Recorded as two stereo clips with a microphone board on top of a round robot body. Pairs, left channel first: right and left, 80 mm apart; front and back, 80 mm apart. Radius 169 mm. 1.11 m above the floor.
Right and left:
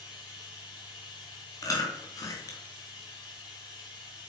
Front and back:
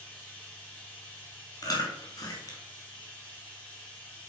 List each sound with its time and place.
0.0 s running water: 70° right, 5.5 m
1.6 s chewing: 40° right, 2.5 m